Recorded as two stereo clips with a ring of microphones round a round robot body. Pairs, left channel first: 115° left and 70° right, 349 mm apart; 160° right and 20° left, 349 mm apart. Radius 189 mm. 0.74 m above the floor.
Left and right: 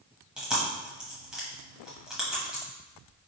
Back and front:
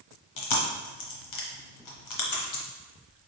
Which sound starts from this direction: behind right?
Chewing, at 0.4 s.